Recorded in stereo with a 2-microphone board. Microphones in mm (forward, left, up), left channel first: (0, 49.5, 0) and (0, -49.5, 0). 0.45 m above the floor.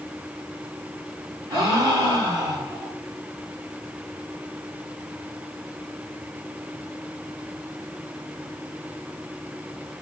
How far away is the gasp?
About 3.5 m.